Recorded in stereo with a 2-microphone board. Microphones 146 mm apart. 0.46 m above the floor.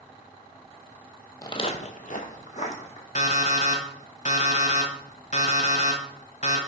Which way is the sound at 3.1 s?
60° left (ahead or behind).